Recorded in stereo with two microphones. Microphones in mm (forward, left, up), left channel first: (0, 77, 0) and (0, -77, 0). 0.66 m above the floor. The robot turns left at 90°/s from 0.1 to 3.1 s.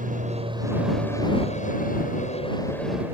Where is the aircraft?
105° right; by 3.1 s 15° right.